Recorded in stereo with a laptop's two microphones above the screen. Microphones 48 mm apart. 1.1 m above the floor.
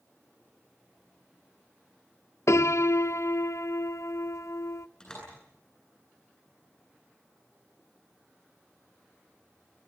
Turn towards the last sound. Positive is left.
turn(degrees=15)  # may be behind; listen again after turning